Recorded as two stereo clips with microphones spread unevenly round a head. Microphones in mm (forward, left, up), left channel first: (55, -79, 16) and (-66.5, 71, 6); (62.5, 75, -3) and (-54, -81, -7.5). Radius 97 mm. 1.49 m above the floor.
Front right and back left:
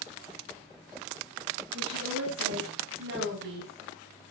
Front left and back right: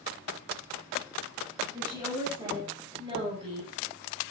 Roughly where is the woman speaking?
Behind.